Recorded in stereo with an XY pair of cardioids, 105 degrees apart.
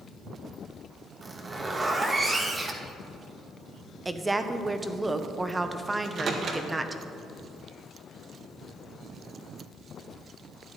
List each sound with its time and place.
1.2 s a zipper: 30° right, 1.3 m
4.0 s a woman speaking: 20° right, 0.9 m
6.0 s a microwave: 60° right, 1.5 m